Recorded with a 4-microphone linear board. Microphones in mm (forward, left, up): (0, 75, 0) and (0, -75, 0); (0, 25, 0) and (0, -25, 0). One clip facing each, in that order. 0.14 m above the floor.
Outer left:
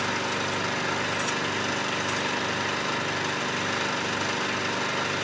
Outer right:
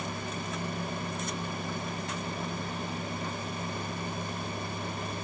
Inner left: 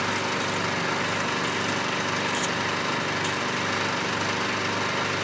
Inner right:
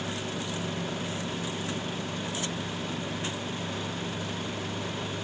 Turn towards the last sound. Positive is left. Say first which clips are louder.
# outer left 7 dB, inner left 8 dB
turn(degrees=85)